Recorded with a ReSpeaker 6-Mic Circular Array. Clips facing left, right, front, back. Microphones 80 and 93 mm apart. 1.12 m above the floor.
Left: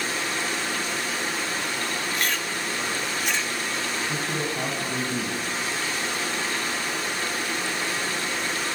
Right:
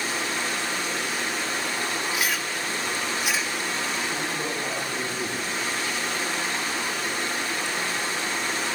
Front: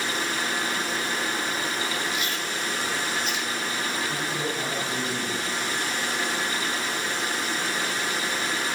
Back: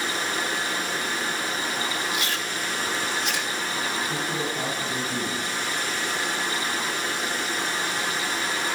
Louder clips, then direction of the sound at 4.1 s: Left 1 dB, back 1 dB; 105° left.